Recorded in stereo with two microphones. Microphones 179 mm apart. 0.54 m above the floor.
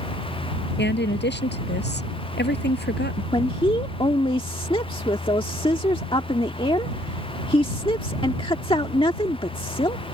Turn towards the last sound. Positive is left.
turn(degrees=30)  # may be behind; listen again after turning